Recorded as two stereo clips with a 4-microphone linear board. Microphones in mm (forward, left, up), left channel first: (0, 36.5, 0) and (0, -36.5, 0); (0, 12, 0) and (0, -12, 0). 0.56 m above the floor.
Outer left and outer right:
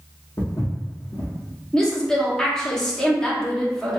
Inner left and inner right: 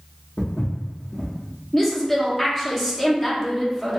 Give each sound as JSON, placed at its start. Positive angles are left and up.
{"t": 0.4, "sound": "footsteps", "side_deg": 65, "distance_m": 1.5}
{"t": 1.7, "sound": "a woman speaking", "side_deg": 10, "distance_m": 0.9}